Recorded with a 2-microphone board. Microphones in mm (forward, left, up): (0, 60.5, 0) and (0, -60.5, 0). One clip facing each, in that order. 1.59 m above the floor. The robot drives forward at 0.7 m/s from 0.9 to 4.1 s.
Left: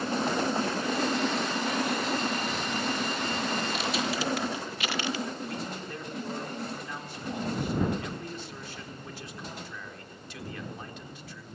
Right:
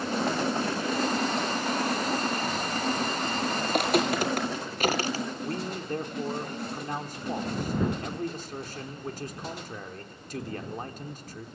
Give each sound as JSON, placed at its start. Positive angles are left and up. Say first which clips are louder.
{"t": 3.6, "sound": "footsteps", "louder": "right 6 dB", "side_deg": -55, "distance_m": 2.5}
{"t": 5.4, "sound": "a man speaking", "louder": "right 3 dB", "side_deg": -45, "distance_m": 3.5}